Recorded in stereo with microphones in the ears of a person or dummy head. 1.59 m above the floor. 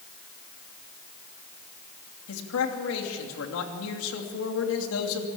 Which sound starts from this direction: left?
A man speaking, at 2.3 s.